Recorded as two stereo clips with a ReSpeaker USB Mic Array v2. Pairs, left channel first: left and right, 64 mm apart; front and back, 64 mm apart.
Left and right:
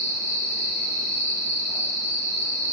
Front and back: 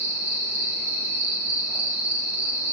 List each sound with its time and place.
0.0 s an insect: 130° left, 1.4 m